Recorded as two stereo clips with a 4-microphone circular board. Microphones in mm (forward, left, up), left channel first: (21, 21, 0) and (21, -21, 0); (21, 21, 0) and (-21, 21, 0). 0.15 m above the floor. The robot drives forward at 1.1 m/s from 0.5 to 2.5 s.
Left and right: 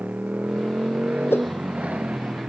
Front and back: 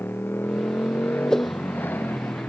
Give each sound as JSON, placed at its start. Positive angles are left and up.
{"t": 0.0, "sound": "a motorcycle", "azimuth_deg": -35}
{"t": 1.3, "sound": "a whoosh", "azimuth_deg": 75}